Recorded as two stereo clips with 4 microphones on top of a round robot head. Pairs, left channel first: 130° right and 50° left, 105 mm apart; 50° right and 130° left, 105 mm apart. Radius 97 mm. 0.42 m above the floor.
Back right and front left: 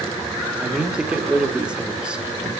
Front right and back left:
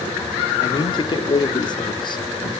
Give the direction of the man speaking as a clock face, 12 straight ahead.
1 o'clock.